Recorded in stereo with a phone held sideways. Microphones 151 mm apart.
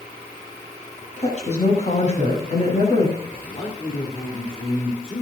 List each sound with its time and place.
1.2 s a woman speaking: 50° left (ahead or behind), 8 m
3.2 s a man speaking: 35° left (ahead or behind), 3 m